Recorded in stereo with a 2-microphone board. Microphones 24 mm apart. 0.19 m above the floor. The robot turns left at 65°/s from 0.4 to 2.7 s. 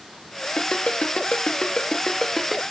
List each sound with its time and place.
0.6 s a ringtone: 50° left (ahead or behind), 1.4 m; by 2.6 s 5° right (ahead or behind), 1.4 m